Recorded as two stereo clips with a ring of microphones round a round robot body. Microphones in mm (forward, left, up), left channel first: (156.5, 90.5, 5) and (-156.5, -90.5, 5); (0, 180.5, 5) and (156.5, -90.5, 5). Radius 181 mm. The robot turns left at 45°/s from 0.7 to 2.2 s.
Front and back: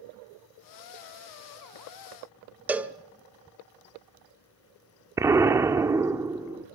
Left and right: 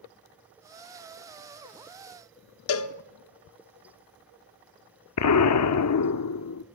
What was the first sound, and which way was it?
A cowbell, 125° left.